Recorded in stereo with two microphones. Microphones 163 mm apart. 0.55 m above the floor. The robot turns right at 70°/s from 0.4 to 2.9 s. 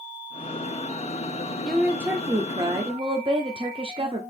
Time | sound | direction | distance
1.6 | a woman speaking | 175° left | 0.7 m